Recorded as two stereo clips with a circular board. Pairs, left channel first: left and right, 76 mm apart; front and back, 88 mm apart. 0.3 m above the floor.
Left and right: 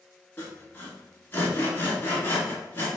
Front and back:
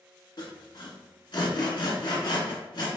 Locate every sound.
0.4 s sawing: 30° left, 1.2 m